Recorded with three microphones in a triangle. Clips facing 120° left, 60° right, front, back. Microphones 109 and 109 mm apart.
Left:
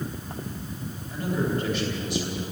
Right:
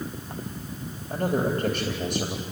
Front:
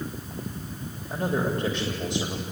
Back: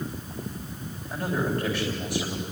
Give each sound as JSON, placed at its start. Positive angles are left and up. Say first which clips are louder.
{"t": 1.1, "sound": "a man speaking", "louder": "right 2 dB, front 1 dB", "azimuth_deg": -65, "distance_m": 3.0}